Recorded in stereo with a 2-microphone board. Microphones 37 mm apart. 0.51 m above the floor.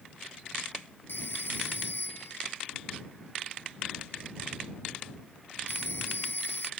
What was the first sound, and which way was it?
A phone ringing, 80° left.